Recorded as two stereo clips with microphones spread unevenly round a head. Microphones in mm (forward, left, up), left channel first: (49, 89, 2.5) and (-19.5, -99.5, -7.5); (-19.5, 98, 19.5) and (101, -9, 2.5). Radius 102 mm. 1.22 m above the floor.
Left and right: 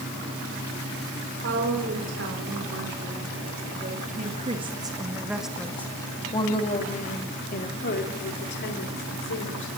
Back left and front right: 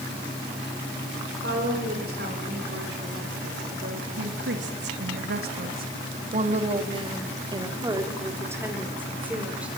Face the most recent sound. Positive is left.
turn(degrees=40)